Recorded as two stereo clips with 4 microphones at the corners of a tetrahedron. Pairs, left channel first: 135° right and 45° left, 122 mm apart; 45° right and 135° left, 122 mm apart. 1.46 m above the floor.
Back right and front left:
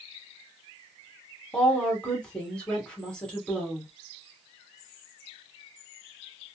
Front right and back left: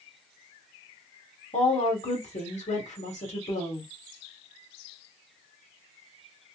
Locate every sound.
1.5 s a woman speaking: 55° right, 1.6 m